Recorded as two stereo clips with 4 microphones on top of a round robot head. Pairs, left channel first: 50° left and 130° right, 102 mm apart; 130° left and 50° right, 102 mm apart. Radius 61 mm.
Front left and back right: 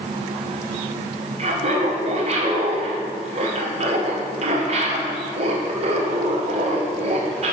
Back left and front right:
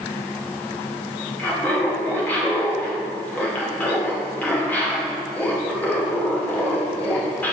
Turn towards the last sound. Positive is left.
turn(degrees=-155)